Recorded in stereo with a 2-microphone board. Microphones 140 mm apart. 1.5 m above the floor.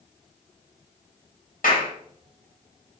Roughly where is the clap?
Left.